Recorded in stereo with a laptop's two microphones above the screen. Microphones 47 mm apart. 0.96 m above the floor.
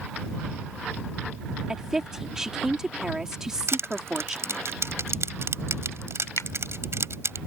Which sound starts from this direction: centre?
A woman speaking, at 1.7 s.